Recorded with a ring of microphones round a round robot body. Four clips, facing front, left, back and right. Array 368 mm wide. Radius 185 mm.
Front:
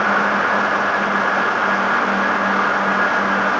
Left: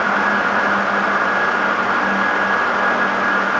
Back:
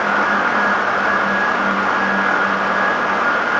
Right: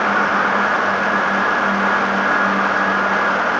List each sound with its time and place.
Only background noise.